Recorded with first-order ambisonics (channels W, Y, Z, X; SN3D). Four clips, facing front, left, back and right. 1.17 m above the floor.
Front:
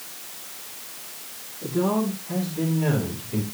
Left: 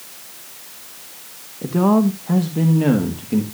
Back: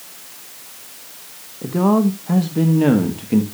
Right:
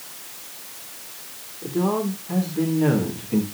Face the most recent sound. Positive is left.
turn(degrees=165)